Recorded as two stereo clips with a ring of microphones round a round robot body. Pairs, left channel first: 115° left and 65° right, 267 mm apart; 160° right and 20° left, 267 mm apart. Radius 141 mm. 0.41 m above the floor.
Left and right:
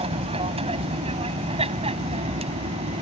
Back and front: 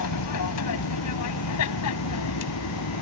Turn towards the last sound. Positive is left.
turn(degrees=-135)